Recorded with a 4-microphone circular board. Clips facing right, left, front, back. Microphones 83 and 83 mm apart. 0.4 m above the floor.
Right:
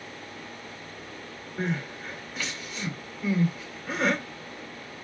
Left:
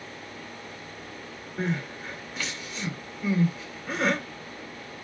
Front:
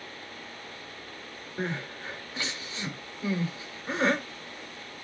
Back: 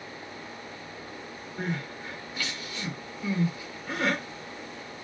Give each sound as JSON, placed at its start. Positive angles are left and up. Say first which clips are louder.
{"t": 1.6, "sound": "crying", "louder": "left 1 dB, even", "azimuth_deg": 0, "distance_m": 1.1}